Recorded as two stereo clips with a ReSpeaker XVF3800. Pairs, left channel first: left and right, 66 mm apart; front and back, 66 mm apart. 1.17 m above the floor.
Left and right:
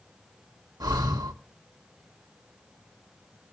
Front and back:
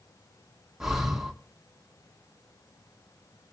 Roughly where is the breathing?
Right.